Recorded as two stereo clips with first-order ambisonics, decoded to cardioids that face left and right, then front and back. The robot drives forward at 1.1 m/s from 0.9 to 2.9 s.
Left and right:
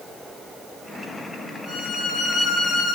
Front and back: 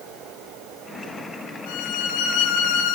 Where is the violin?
15° left, 6.5 m; by 3.0 s 20° left, 5.5 m.